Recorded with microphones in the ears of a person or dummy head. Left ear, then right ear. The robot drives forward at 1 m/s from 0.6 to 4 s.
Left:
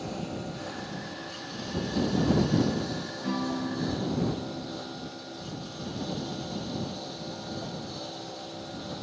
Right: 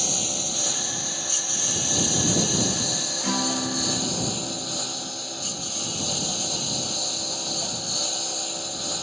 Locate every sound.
0.0 s a lawn mower: 75° right (ahead or behind); by 9.0 s 60° right (ahead or behind)
3.2 s a guitar: 80° right; by 5.5 s 55° right (ahead or behind)